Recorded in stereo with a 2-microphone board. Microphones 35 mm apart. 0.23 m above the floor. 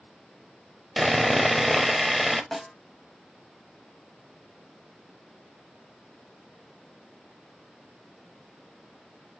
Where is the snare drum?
5° left (ahead or behind), 1.9 m.